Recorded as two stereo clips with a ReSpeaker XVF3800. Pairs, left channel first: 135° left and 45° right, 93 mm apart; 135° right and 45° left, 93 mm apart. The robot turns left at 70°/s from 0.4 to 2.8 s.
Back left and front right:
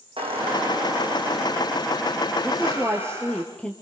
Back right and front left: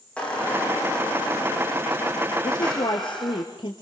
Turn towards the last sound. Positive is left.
turn(degrees=-150)